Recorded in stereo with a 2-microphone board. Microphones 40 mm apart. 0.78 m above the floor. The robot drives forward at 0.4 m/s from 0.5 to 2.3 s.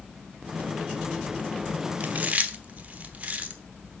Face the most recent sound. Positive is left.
turn(degrees=-40)  # may be behind; listen again after turning